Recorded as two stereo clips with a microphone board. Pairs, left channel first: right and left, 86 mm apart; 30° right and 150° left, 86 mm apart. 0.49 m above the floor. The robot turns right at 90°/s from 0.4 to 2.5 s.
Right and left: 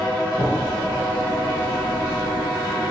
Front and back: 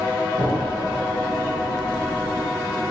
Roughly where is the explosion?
Ahead right.